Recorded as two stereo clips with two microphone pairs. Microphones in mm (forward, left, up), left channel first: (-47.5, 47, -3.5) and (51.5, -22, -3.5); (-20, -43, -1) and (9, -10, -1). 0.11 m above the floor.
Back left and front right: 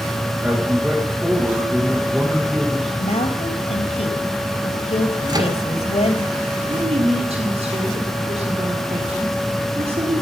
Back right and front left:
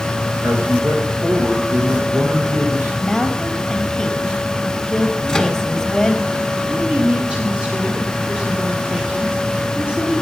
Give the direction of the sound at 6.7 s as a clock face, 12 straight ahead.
1 o'clock.